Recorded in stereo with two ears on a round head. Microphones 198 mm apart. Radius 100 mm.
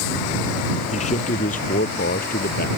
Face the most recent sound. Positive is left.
turn(degrees=40)  # may be behind; listen again after turning